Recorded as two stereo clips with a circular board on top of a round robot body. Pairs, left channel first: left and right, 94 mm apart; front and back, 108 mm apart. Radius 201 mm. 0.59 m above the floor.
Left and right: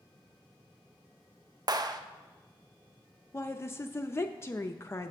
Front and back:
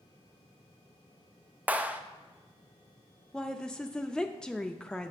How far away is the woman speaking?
About 0.6 m.